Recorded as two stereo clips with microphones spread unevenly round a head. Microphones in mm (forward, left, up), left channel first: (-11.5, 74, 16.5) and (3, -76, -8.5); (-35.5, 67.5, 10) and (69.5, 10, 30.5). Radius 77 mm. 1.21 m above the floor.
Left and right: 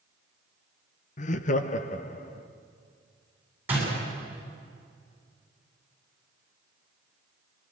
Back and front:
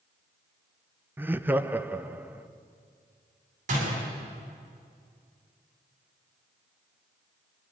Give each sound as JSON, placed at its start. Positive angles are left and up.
{"t": 1.2, "sound": "laughter", "azimuth_deg": 50, "distance_m": 0.7}
{"t": 3.7, "sound": "a door slam", "azimuth_deg": -5, "distance_m": 7.5}